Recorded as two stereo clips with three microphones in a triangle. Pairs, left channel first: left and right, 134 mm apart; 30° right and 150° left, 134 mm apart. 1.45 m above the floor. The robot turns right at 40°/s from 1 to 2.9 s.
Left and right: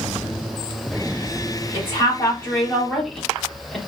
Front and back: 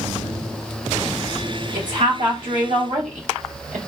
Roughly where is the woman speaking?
Behind left.